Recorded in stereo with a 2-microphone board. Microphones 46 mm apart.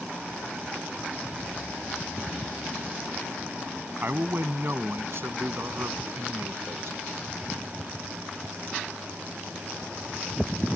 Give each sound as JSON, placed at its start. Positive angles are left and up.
{"t": 4.0, "sound": "a man speaking", "side_deg": -50}